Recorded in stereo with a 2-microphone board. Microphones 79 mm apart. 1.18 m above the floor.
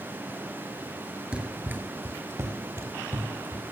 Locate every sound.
1.3 s running footsteps: 15° right (ahead or behind), 1.2 m; by 3.6 s 35° right (ahead or behind), 3 m